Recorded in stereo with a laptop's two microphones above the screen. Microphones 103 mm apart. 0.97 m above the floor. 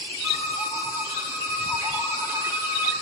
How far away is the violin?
About 2.5 m.